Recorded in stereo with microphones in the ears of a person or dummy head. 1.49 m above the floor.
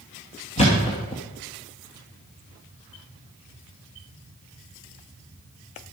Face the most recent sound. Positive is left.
turn(degrees=30)  # may be behind; listen again after turning